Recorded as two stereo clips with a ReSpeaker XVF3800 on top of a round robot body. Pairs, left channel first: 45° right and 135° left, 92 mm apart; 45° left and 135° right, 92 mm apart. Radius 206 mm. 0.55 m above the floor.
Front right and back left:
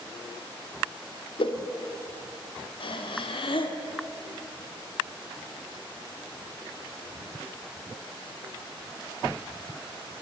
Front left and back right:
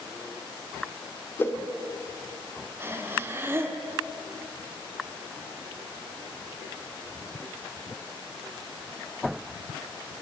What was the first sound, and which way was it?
A whoosh, 20° right.